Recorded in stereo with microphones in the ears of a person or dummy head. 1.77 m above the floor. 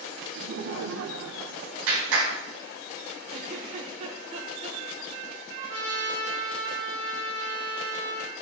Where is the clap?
75° right (ahead or behind), 4.5 m.